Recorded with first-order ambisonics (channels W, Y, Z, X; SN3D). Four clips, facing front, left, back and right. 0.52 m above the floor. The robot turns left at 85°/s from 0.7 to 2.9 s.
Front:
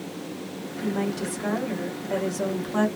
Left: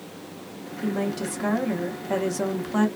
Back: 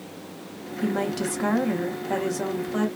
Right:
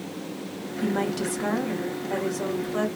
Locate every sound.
0.8 s a woman speaking: 115° right, 0.7 m; by 2.9 s 70° left, 0.7 m